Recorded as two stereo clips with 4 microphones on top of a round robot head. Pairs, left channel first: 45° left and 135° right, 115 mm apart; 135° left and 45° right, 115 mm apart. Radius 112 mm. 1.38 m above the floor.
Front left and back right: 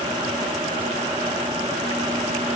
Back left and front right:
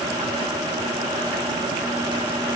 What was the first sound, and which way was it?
Only background noise.